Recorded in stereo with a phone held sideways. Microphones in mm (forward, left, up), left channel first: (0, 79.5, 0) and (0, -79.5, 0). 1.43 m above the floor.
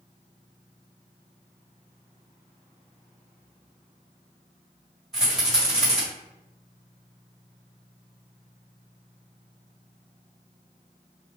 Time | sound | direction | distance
5.1 | a rattle | centre (ahead or behind) | 1.9 m